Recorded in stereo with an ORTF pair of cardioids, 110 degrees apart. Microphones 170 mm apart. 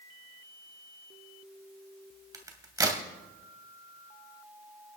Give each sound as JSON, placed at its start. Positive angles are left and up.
{"t": 2.3, "sound": "a crack", "azimuth_deg": -20, "distance_m": 2.5}